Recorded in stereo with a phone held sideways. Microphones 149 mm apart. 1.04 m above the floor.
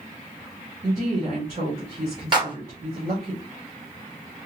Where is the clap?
30° right (ahead or behind), 2 m.